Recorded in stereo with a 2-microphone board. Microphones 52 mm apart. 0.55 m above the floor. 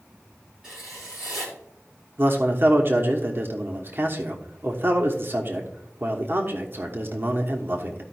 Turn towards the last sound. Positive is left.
turn(degrees=-45)  # may be behind; listen again after turning